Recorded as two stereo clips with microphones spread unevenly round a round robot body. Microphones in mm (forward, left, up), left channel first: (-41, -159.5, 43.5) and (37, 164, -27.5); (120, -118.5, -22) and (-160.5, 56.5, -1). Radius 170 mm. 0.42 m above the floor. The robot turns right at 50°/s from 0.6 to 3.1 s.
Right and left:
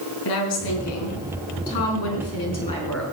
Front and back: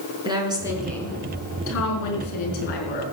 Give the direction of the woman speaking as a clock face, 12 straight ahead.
4 o'clock.